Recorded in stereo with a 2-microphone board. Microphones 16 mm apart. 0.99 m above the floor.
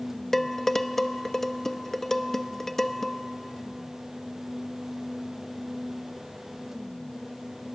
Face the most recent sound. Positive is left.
turn(degrees=20)  # may be behind; listen again after turning